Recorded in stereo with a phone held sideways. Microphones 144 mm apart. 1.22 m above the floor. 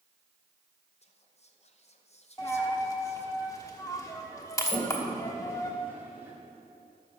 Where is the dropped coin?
20° left (ahead or behind), 1.0 m.